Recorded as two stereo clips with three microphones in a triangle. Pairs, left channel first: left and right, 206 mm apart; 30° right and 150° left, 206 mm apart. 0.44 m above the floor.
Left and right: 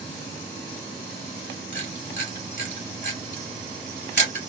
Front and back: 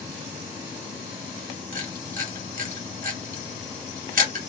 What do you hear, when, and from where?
1.7 s a camera shutter: 110° left, 3 m